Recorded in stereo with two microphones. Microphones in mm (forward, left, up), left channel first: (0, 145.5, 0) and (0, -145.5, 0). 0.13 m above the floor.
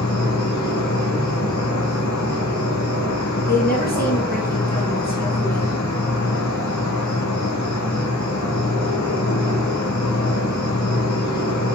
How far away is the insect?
About 2 m.